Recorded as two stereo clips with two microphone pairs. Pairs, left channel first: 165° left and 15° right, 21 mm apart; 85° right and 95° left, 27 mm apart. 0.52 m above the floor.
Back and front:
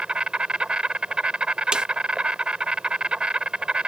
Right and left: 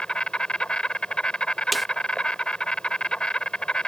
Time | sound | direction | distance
0.0 | an insect | 35° right | ?
1.7 | a snare drum | 5° left | ?